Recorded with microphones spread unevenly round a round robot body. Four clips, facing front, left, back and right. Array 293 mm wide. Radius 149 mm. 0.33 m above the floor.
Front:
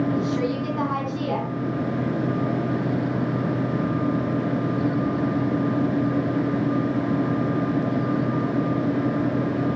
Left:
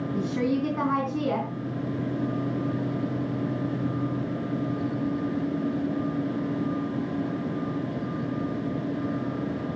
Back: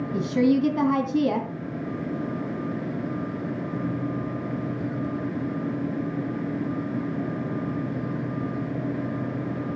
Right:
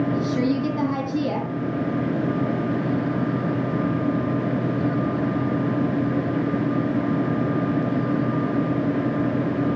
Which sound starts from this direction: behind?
A woman speaking, at 0.1 s.